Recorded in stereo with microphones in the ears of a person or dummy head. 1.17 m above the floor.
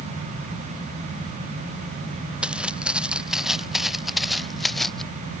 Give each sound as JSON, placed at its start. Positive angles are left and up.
{"t": 2.4, "sound": "footsteps", "side_deg": -10}